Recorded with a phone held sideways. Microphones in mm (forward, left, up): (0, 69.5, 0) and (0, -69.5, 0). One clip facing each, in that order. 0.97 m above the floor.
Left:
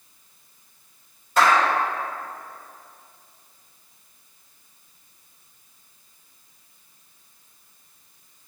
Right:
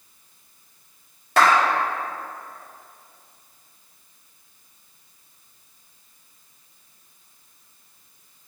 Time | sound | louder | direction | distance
1.4 | a clap | right 1 dB | 80° right | 2 m